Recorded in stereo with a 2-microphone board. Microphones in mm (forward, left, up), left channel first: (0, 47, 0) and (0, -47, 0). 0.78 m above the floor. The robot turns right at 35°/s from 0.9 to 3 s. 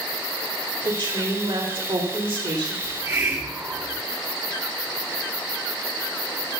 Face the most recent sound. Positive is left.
turn(degrees=-35)  # may be behind; listen again after turning